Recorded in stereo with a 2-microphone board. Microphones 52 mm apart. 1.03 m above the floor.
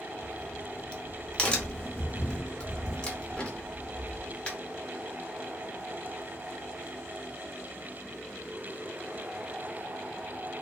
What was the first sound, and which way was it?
A crack, 20° left (ahead or behind).